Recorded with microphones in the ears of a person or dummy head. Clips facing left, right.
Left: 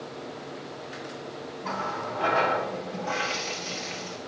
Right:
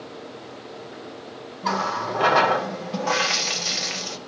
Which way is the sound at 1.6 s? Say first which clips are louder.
Right 7 dB; 70° right (ahead or behind).